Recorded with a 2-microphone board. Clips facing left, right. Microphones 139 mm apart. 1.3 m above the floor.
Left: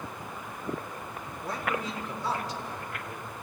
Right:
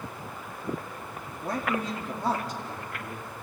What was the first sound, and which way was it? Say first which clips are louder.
A man speaking: right 3 dB; 55° right (ahead or behind).